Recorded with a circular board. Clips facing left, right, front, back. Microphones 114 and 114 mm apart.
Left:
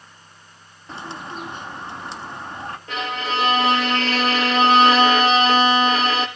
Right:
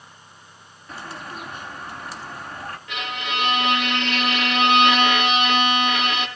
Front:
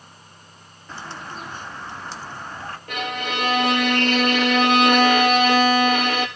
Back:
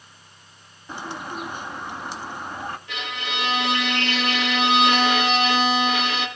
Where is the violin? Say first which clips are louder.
Left 4 dB, front 5 dB; 35° left, 1.9 m.